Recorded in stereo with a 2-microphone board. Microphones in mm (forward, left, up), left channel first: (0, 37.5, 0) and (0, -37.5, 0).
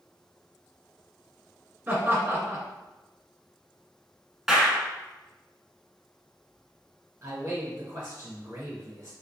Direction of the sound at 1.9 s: 25° right (ahead or behind).